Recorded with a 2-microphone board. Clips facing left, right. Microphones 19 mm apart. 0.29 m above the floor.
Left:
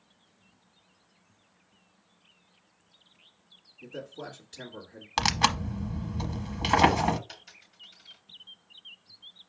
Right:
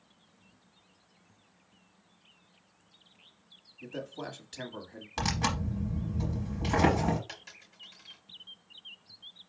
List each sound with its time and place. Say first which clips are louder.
3.8 s a man speaking: right 1 dB; 25° right (ahead or behind), 1.5 m
5.2 s tearing paper: left 6 dB; 55° left (ahead or behind), 0.8 m
7.3 s a dropped coin: right 1 dB; 55° right (ahead or behind), 4 m